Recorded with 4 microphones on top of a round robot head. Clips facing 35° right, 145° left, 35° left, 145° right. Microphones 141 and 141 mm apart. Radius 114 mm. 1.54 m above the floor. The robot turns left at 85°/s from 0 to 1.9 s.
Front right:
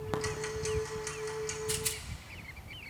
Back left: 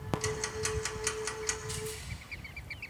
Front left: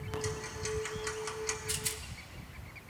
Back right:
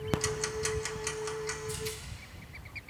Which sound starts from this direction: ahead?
A rattle, at 1.7 s.